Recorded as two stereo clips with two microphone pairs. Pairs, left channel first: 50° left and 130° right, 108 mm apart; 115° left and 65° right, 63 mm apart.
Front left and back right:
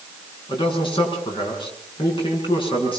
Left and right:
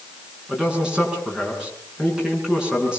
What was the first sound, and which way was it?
A man speaking, 10° left.